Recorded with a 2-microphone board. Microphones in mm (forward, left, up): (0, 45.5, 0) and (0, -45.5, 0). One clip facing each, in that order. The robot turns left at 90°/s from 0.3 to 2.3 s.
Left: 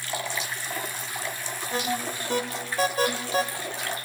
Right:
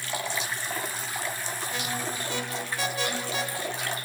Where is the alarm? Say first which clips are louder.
Left 6 dB; 40° left (ahead or behind), 1.9 m; by 3.4 s 45° left (ahead or behind), 1.9 m.